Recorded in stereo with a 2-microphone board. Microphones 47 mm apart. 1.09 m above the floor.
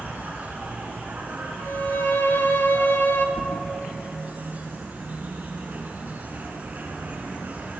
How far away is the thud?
About 4 m.